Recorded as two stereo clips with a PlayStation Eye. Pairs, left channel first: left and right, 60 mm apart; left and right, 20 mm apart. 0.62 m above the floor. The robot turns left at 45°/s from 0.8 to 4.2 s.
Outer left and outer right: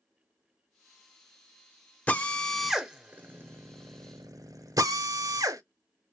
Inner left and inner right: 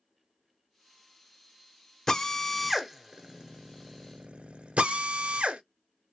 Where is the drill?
25° left (ahead or behind), 0.9 m; by 5.6 s 70° right (ahead or behind), 0.9 m.